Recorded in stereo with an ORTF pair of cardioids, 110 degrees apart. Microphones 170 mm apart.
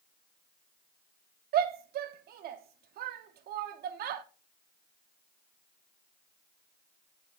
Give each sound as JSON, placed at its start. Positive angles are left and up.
{"t": 1.5, "sound": "a shout", "azimuth_deg": -65, "distance_m": 1.0}